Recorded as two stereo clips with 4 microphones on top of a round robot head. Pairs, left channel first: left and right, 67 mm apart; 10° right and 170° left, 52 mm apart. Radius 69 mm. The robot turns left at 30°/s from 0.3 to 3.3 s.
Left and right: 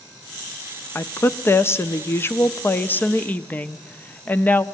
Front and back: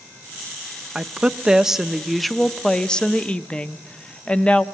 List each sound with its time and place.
0.9 s a woman speaking: 115° left, 0.7 m; by 4.7 s 45° left, 0.7 m